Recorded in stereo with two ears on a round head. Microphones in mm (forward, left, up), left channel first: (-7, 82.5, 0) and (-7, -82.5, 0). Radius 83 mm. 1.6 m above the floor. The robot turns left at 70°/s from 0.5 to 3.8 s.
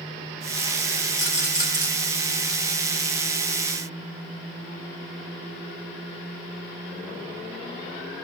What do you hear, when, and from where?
1.2 s a rattle: 10° left (ahead or behind), 3 m; by 1.9 s 30° right (ahead or behind), 3 m